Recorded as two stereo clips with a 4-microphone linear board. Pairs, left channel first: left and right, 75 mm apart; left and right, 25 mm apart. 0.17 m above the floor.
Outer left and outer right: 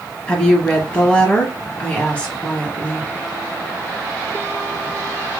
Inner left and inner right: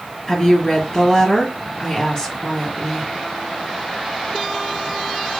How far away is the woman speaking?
About 2 m.